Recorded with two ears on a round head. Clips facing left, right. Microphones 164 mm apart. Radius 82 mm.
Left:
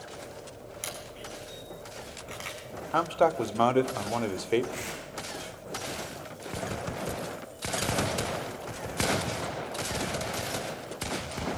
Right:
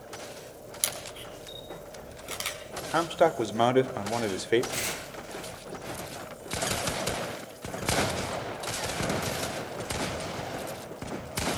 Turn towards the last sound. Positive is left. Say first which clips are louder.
# right 1 dB
turn(degrees=-55)  # may be behind; listen again after turning